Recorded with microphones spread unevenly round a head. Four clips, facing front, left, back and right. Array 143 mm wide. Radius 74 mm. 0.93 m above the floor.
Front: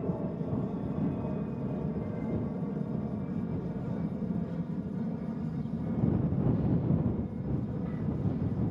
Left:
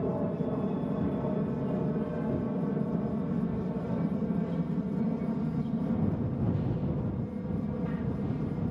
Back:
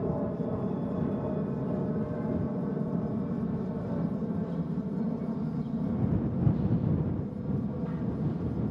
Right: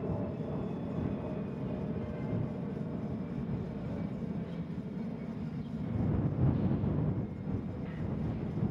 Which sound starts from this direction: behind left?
An aircraft, at 0.0 s.